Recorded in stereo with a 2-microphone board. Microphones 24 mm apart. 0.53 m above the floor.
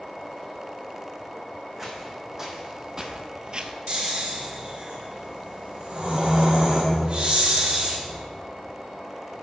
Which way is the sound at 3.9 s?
50° right (ahead or behind).